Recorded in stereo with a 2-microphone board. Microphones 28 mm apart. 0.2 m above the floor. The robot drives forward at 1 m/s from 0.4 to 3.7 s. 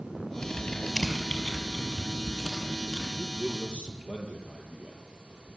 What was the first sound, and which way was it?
Typing on a keyboard, 25° left (ahead or behind).